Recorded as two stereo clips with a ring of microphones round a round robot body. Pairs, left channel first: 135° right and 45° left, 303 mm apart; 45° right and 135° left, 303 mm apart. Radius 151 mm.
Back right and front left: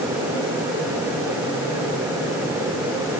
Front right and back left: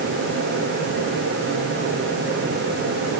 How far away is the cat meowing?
I don't hear a cat meowing.